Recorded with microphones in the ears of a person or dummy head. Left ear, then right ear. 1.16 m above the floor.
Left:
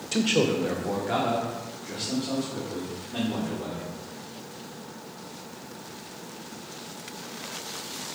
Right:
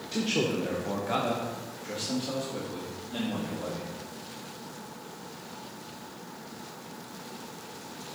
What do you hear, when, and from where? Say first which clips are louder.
0.1 s a man speaking: left 5 dB; 30° left (ahead or behind), 0.8 m; by 3.9 s 40° right (ahead or behind), 2.5 m